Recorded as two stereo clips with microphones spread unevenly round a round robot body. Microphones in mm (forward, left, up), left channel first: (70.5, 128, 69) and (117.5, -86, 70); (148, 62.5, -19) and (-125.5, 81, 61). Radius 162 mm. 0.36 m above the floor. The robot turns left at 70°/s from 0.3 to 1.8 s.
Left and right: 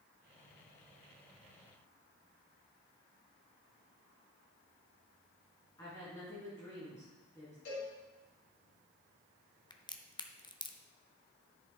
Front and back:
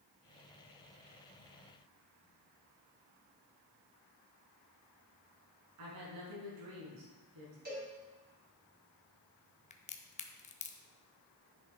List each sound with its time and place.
5.8 s a woman speaking: straight behind, 4.5 m
7.7 s a cowbell: 115° left, 4 m
9.7 s a crack: 35° left, 0.9 m